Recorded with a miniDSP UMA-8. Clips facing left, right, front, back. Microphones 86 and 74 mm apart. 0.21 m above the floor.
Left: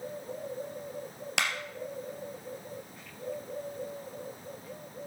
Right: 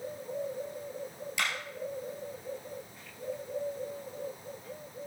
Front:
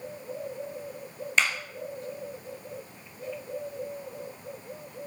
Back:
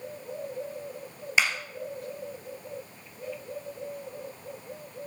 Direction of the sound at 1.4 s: 95° left.